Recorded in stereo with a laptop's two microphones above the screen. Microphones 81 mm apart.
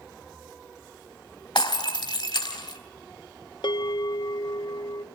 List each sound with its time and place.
1.6 s breaking glass: 75° left (ahead or behind), 2.5 m
3.6 s a bell: 65° left (ahead or behind), 0.6 m